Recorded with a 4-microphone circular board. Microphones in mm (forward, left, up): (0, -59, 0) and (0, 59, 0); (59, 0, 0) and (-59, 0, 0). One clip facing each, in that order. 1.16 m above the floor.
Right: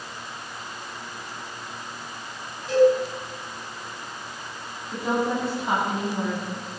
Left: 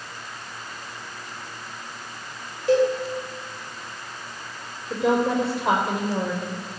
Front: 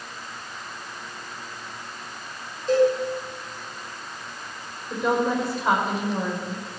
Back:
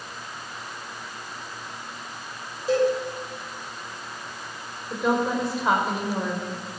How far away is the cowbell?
About 6.5 m.